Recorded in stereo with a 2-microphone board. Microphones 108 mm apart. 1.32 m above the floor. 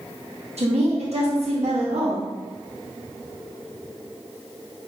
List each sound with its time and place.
0.6 s a woman speaking: 75° right (ahead or behind), 1.0 m